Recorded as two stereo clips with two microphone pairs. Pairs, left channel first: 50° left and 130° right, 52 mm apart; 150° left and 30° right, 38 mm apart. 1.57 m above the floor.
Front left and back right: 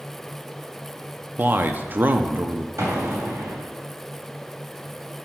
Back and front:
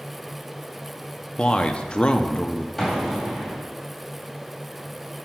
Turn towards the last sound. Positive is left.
turn(degrees=-125)